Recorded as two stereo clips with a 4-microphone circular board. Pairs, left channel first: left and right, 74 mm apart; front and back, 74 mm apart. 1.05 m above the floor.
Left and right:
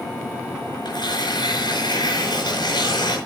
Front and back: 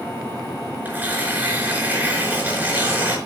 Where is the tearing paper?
110° left, 5 m.